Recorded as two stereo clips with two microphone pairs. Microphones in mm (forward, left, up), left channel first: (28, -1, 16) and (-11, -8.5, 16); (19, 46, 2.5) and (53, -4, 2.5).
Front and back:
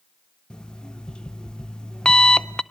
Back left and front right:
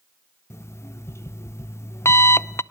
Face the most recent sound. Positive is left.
turn(degrees=80)